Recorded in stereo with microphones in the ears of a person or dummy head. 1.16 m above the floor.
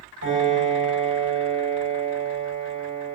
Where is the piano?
85° left, 7.5 m.